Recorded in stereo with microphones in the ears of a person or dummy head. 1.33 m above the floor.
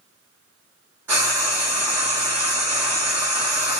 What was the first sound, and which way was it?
Frying, 10° right (ahead or behind).